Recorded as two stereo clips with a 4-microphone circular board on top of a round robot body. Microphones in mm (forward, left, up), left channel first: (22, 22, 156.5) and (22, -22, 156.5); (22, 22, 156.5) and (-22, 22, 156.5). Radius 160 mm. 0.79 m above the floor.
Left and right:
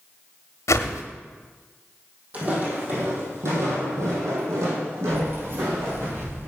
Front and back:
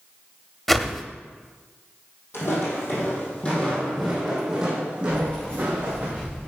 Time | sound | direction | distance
0.7 | a whoosh | 85° left | 0.8 m
2.3 | footsteps | 30° right | 2.5 m
5.1 | keys jangling | 70° right | 6 m